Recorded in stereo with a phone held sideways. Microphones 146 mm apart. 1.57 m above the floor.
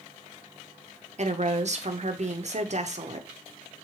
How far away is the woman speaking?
About 0.5 m.